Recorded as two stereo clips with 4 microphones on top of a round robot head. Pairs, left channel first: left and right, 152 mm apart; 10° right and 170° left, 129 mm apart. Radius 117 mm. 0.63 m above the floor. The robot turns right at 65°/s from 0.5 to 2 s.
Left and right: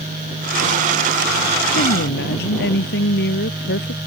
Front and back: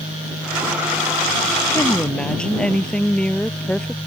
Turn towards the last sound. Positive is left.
turn(degrees=70)